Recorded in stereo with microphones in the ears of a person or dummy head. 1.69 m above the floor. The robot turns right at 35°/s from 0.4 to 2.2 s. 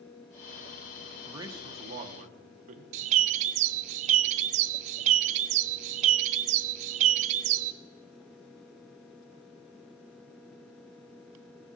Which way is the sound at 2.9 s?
40° right (ahead or behind).